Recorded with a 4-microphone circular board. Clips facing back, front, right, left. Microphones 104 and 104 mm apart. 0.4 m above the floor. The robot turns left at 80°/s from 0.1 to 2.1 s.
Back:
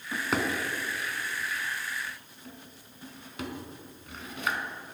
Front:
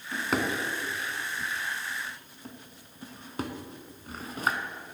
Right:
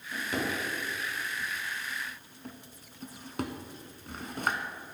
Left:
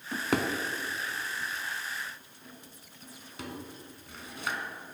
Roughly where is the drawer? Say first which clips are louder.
Even, left 3 dB; left.